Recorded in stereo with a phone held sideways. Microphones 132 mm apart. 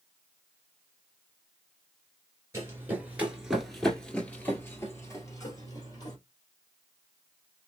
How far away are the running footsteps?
About 1.4 m.